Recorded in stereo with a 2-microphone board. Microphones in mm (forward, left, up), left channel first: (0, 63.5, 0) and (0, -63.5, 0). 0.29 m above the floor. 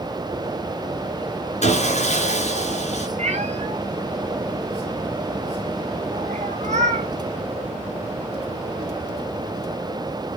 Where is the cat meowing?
60° right (ahead or behind), 1.0 m.